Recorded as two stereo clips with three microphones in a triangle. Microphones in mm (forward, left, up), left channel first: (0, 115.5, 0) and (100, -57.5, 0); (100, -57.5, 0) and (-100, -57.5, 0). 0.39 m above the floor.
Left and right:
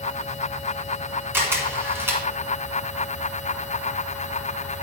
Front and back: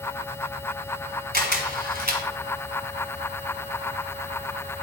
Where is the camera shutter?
140° right, 1.6 m.